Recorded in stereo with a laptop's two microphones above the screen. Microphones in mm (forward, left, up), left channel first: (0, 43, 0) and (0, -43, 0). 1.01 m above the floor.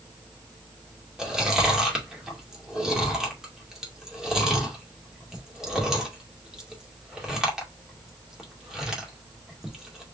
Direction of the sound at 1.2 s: 5° right (ahead or behind).